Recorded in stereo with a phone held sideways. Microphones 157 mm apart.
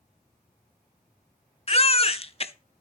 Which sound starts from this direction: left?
A baby crying, at 1.7 s.